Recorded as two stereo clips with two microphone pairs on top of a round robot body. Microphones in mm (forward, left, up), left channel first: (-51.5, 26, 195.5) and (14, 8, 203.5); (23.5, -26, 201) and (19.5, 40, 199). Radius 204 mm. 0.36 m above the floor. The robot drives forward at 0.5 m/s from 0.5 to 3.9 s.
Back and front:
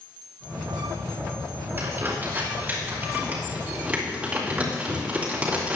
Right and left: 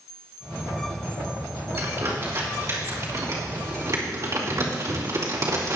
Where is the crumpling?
45° left, 4 m; by 5.8 s 60° left, 3.5 m.